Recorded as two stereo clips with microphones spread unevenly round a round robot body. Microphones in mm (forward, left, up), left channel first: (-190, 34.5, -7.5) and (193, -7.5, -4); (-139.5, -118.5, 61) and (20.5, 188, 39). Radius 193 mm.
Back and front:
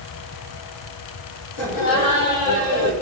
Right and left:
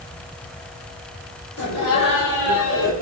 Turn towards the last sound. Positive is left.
turn(degrees=-175)